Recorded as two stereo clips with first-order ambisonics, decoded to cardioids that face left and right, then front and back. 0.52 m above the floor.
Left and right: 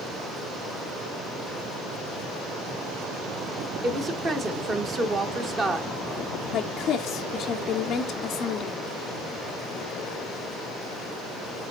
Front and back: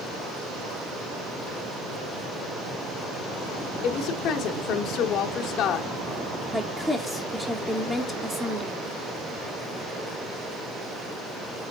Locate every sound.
3.8 s a woman speaking: 25° right, 1.0 m
6.5 s a woman speaking: 105° left, 0.8 m